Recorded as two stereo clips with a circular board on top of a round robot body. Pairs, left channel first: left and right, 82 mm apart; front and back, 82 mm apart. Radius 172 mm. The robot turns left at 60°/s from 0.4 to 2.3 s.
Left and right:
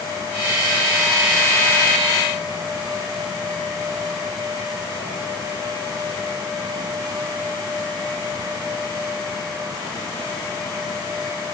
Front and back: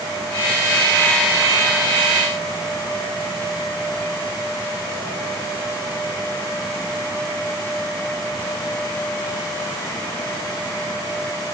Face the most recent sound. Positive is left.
No sound to turn to.